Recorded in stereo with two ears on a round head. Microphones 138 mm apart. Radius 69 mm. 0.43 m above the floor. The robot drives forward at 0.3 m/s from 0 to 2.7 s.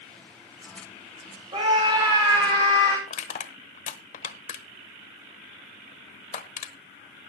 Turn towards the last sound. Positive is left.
turn(degrees=50)  # may be behind; listen again after turning